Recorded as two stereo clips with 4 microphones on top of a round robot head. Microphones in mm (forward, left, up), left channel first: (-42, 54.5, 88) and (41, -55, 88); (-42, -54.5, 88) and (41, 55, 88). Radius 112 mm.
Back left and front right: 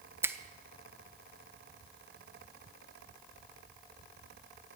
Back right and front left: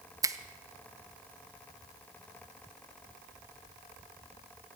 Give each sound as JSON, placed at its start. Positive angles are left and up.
{"t": 0.2, "sound": "a finger snap", "azimuth_deg": 10, "distance_m": 0.7}